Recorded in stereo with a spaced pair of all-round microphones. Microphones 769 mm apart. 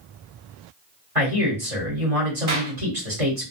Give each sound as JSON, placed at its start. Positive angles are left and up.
{"t": 1.1, "sound": "a man speaking", "side_deg": -45, "distance_m": 1.5}
{"t": 2.5, "sound": "a clap", "side_deg": -25, "distance_m": 2.5}